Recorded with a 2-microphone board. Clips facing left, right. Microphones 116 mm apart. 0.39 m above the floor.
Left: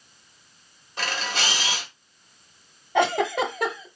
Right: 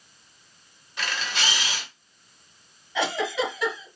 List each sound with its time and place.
1.0 s a camera shutter: 40° left (ahead or behind), 1.6 m
3.0 s a giggle: 50° left (ahead or behind), 1.0 m